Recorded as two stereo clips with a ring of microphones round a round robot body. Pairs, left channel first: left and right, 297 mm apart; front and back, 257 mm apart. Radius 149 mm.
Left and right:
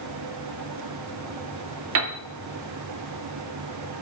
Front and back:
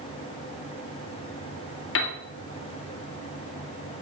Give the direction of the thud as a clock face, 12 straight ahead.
No thud in this recording.